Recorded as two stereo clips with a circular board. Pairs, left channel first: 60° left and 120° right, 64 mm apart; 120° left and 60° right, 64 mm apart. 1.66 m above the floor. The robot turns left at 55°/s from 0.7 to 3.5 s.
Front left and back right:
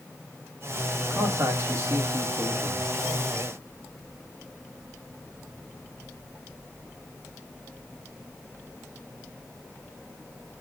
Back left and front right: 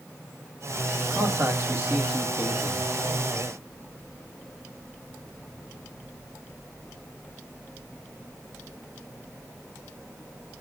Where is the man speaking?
80° right, 2.5 m; by 2.9 s straight behind, 2.5 m.